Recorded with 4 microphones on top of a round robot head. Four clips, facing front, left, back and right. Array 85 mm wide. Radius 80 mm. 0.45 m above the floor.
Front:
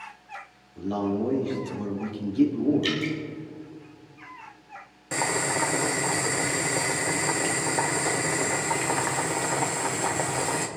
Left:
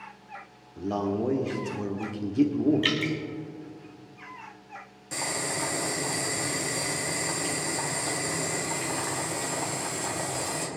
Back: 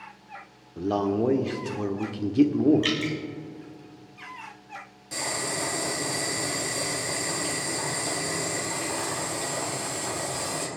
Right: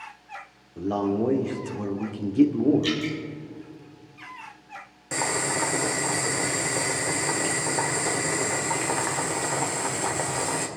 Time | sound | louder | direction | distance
0.8 | a man speaking | right 3 dB, back 2 dB | 155° right | 1.7 m
2.8 | dripping | right 1 dB, even | 120° left | 2.5 m
5.1 | boiling | right 5 dB, front 5 dB | 35° right | 2.0 m